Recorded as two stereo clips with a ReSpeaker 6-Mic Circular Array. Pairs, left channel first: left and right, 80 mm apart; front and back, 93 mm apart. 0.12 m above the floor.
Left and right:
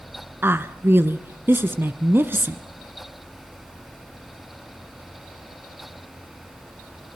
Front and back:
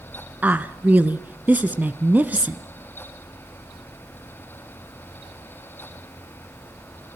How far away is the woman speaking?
About 1.2 m.